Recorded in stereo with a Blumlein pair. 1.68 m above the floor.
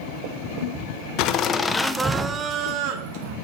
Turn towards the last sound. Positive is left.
turn(degrees=-50)